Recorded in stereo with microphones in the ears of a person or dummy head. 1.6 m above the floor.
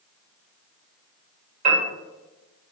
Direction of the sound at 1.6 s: 45° right (ahead or behind).